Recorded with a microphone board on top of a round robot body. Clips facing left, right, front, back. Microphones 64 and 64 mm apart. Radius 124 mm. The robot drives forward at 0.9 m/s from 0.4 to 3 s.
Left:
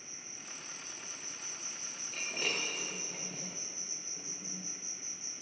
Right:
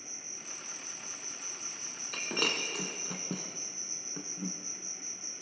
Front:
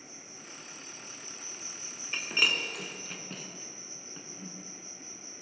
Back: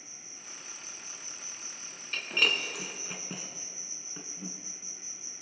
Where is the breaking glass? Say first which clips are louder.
Right 4 dB, even; 75° right, 2 m; by 4.5 s 100° right, 2 m.